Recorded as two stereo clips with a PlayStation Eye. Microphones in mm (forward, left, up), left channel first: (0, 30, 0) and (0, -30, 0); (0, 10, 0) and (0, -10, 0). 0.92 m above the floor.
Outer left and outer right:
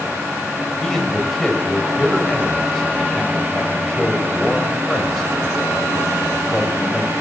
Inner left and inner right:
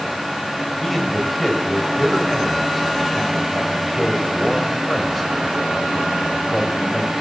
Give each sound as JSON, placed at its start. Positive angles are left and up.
{"t": 0.8, "sound": "a man speaking", "side_deg": 10, "distance_m": 4.0}